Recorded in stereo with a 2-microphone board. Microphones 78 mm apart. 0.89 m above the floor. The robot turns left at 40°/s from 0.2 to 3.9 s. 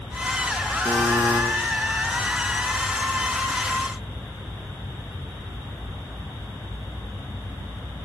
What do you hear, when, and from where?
0.8 s a buzzer: 25° left (ahead or behind), 6.5 m; by 1.4 s 45° left (ahead or behind), 6.5 m